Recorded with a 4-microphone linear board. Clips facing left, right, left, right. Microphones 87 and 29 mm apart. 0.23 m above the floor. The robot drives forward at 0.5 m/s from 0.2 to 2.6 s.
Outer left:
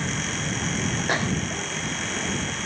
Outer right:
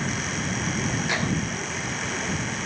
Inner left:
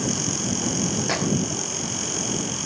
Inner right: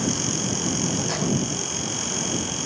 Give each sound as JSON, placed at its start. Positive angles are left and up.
{"t": 1.1, "sound": "a microwave", "side_deg": 40, "distance_m": 3.0}